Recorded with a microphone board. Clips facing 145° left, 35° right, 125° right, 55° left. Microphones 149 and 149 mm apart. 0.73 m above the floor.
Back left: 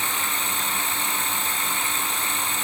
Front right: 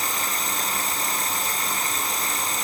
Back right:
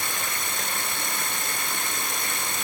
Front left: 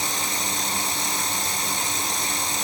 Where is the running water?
90° right.